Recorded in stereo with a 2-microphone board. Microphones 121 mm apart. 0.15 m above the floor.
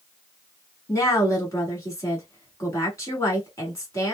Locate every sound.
0.9 s a woman speaking: 25° left (ahead or behind), 1.4 m